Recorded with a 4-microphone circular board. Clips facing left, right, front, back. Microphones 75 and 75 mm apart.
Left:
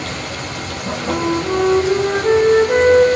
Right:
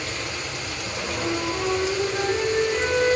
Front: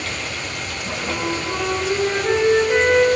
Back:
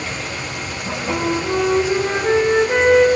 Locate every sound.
0.0 s running water: 100° left, 7 m
1.1 s a flute: 110° left, 5 m